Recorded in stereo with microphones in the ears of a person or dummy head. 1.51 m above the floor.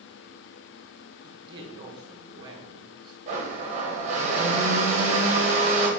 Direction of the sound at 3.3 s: 35° right (ahead or behind).